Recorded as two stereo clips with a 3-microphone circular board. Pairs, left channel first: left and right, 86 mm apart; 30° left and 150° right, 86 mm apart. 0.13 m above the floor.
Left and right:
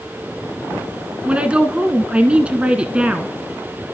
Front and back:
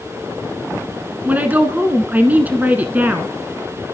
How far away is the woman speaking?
About 1.1 m.